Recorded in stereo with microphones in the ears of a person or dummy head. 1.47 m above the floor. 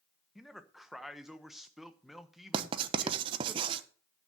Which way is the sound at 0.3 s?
5° left (ahead or behind).